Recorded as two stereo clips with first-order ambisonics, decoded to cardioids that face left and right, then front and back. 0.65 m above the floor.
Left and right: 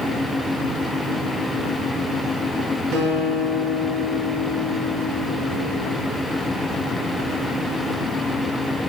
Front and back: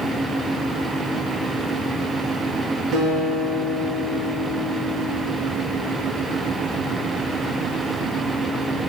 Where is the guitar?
130° right, 1.8 m.